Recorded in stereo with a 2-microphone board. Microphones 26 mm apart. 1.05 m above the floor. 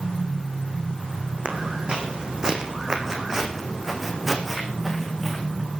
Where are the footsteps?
40° right (ahead or behind), 4 m; by 5.7 s 5° left (ahead or behind), 5 m.